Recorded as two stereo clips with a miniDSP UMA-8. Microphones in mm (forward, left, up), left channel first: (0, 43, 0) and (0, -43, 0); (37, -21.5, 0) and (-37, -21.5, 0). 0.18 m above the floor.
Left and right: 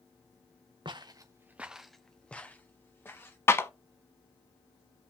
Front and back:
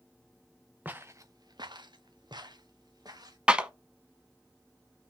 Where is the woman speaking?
I don't hear a woman speaking.